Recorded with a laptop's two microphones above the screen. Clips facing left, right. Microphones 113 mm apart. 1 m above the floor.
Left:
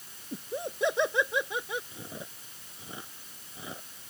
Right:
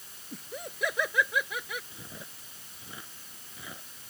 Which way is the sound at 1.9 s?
25° left (ahead or behind).